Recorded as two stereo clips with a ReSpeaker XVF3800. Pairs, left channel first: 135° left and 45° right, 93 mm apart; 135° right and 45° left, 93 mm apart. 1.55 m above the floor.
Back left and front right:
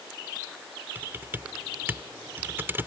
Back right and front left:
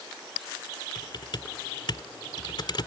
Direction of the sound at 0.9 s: 110° right.